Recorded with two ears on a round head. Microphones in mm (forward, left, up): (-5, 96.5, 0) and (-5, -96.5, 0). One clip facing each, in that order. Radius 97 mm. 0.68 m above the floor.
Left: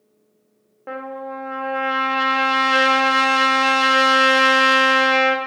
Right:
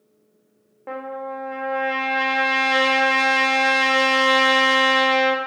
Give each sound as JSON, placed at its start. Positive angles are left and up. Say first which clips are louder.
{"t": 0.9, "sound": "a trumpet", "louder": "even", "side_deg": 5, "distance_m": 0.7}